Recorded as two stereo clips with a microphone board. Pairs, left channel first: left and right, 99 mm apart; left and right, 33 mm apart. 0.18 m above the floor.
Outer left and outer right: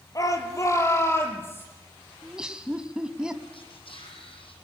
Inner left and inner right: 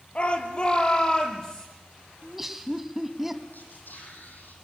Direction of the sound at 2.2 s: 10° right (ahead or behind).